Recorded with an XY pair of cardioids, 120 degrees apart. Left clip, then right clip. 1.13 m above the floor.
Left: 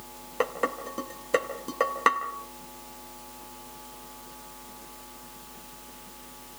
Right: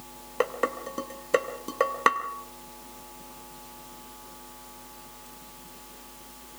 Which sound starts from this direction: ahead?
Dishes clattering, at 0.4 s.